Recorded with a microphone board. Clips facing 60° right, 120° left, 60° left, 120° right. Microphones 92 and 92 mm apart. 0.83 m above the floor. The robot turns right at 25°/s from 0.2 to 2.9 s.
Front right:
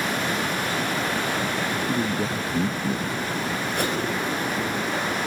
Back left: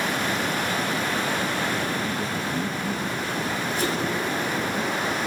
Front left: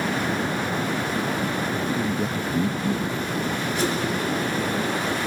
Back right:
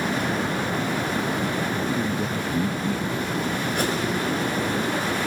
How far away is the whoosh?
About 5.5 m.